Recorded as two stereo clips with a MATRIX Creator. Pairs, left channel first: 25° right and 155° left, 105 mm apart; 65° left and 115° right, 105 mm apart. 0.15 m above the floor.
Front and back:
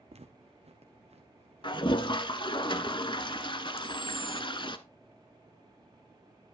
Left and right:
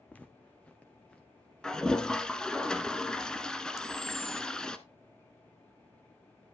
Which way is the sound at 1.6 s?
15° right.